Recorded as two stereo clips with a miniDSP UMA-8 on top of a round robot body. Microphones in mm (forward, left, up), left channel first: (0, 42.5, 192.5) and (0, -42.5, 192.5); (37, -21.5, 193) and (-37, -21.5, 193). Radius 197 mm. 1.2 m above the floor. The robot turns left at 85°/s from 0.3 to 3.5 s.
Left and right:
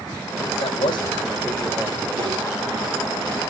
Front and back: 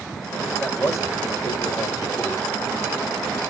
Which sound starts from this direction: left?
A man speaking, at 0.6 s.